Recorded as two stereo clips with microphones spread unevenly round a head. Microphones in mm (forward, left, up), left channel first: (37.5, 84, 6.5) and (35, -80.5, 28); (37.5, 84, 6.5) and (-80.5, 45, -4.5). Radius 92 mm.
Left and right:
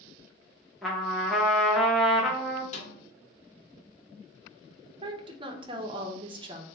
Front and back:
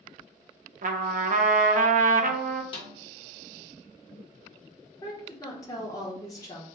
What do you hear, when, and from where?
0.8 s a trumpet: straight behind, 0.6 m
2.7 s a snare drum: 45° left, 1.1 m
5.0 s a woman speaking: 40° right, 0.7 m